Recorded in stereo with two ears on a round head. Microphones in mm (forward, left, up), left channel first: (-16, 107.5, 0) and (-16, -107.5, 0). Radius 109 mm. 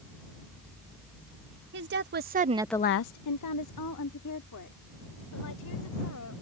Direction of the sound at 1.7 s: 50° right (ahead or behind).